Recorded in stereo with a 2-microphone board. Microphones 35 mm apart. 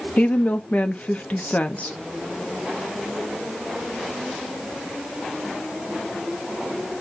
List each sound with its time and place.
0.2 s a woman speaking: 40° left (ahead or behind), 0.7 m